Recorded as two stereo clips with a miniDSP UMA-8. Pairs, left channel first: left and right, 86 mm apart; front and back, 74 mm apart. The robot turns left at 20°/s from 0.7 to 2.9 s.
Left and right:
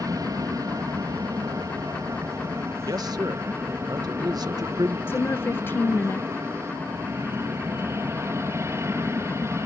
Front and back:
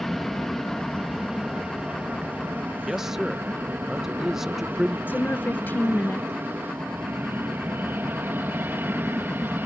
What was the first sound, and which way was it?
An aircraft, 85° right.